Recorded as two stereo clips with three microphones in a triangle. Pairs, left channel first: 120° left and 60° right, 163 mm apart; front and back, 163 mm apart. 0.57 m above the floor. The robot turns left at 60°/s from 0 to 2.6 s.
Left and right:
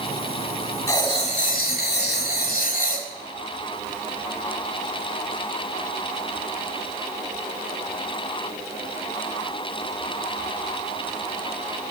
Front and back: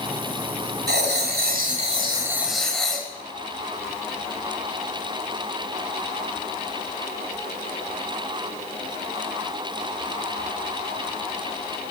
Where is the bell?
I don't hear a bell.